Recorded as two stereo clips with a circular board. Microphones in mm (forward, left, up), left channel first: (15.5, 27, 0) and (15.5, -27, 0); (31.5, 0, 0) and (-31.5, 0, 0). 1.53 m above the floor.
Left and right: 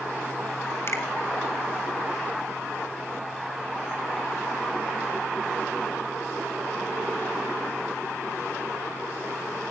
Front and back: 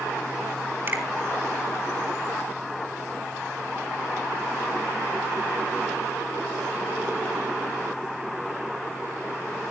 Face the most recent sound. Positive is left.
turn(degrees=125)